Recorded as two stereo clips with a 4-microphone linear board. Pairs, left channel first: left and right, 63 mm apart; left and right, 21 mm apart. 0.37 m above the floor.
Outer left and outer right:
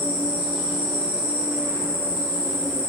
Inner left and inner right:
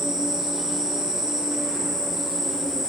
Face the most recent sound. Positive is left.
turn(degrees=-25)  # may be behind; listen again after turning